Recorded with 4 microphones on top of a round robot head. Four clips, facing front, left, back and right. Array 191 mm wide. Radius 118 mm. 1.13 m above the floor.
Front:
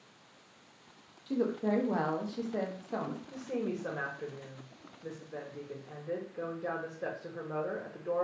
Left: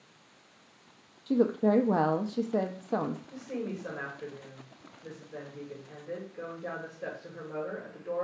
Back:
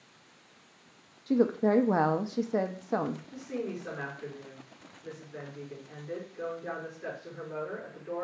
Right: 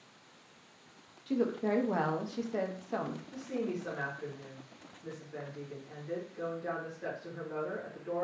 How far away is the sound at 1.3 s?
About 0.5 m.